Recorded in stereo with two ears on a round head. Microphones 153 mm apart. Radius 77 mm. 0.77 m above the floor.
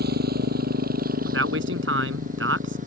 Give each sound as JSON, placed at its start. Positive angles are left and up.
{"t": 0.0, "sound": "a motorcycle", "side_deg": -65}
{"t": 1.2, "sound": "a man speaking", "side_deg": -85}